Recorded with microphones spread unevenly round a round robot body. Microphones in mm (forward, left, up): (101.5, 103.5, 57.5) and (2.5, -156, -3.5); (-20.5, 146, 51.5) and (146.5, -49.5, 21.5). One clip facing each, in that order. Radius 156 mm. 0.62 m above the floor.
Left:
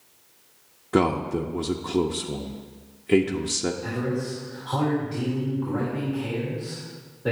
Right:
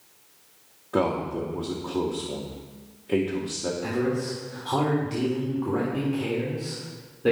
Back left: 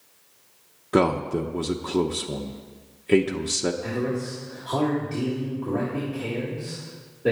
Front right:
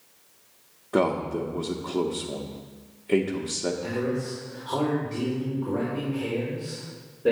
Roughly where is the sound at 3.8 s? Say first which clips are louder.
Right 2 dB, back left 1 dB; behind right.